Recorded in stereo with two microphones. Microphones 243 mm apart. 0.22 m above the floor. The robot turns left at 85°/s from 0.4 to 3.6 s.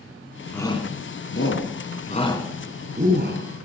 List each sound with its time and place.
0.5 s a shout: 5° left (ahead or behind), 1.7 m; by 3.4 s 55° right (ahead or behind), 1.7 m